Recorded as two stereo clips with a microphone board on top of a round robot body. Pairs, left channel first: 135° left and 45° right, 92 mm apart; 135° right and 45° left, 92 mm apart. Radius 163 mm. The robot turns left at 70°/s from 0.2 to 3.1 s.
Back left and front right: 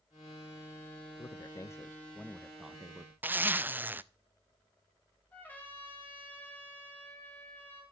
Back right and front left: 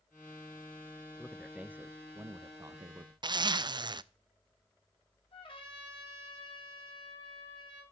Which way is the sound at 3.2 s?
20° left.